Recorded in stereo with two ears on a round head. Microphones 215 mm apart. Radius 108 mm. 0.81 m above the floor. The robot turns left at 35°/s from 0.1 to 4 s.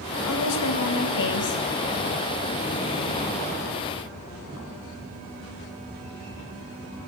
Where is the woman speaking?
90° left, 5.5 m; by 1.6 s 45° left, 5.5 m.